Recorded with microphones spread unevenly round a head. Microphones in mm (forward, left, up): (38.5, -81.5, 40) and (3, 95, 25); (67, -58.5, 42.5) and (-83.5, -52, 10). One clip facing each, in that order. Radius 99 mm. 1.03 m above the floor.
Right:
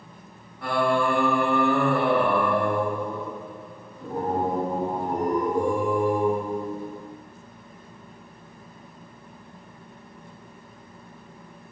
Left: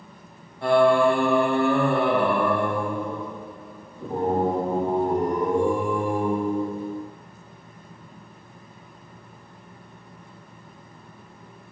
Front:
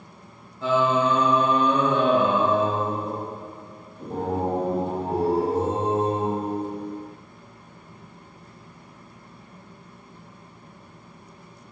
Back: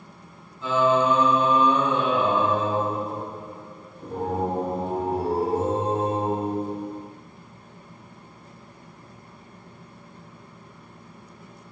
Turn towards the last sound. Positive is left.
turn(degrees=40)